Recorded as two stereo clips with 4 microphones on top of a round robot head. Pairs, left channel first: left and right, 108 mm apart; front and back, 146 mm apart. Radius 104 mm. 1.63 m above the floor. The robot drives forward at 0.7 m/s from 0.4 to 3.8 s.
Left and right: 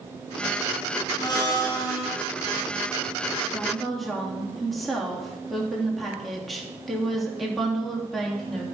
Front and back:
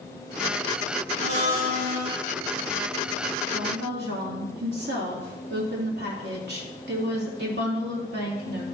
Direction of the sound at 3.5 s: Straight behind.